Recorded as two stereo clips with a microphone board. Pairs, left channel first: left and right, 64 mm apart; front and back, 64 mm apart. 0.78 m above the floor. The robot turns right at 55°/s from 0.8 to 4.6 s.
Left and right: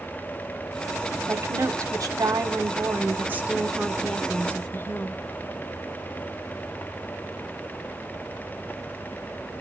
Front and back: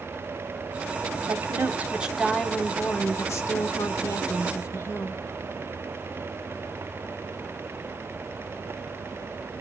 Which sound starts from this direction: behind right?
A woman speaking, at 1.3 s.